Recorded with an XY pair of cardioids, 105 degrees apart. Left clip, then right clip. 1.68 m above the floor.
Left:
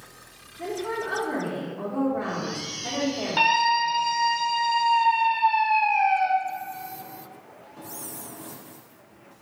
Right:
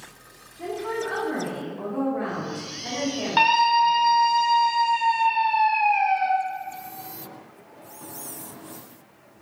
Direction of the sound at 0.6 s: Straight ahead.